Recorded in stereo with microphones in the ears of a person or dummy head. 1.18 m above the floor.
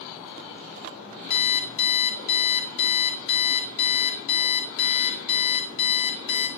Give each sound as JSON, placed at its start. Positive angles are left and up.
{"t": 1.3, "sound": "an alarm clock", "side_deg": 60, "distance_m": 1.8}